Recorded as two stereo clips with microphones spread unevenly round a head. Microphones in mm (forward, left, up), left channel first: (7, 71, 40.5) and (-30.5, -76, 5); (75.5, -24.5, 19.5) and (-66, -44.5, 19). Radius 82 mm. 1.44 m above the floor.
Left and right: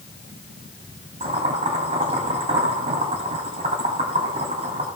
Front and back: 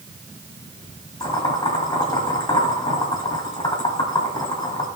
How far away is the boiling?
About 1.9 m.